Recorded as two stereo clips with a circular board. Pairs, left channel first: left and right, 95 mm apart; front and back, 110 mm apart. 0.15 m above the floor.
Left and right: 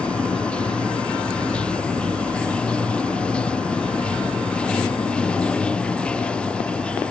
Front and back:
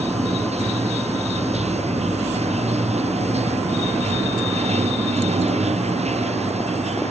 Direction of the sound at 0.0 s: 170° left.